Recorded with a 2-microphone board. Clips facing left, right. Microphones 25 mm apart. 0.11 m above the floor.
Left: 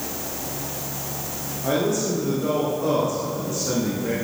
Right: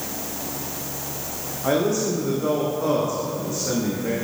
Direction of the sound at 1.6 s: 20° right (ahead or behind).